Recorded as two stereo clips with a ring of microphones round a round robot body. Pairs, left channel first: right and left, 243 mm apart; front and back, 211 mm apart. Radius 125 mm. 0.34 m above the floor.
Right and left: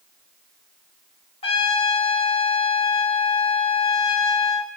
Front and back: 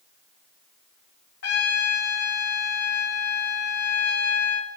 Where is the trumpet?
25° right, 1.0 m.